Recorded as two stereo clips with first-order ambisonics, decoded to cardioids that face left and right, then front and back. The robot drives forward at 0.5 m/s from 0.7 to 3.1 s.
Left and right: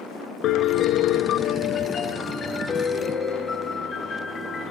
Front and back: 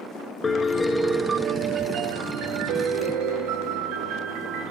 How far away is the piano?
About 0.5 m.